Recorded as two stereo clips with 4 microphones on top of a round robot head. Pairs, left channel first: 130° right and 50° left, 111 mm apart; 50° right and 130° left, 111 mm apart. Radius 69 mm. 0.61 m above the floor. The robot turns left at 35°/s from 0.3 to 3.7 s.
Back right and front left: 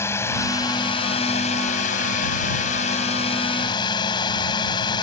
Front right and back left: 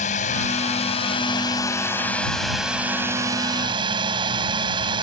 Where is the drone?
60° right; by 5.0 s straight behind.